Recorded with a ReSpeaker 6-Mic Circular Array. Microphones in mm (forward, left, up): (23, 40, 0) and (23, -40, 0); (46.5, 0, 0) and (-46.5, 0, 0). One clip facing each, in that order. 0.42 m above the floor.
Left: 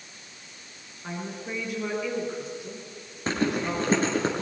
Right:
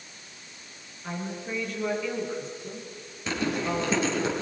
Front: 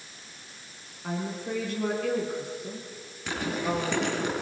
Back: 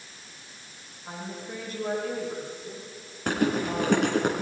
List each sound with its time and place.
1.0 s a woman speaking: 10° left, 9 m; by 4.3 s 5° left, 10 m
3.3 s a zipper: 140° left, 5 m